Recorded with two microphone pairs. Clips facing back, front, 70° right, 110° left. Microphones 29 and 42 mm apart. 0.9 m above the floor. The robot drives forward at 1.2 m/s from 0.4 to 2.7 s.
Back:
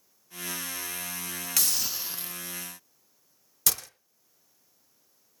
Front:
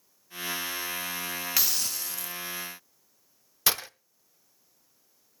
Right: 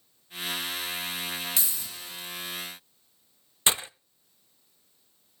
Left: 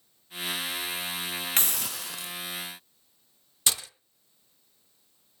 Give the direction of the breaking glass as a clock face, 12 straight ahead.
1 o'clock.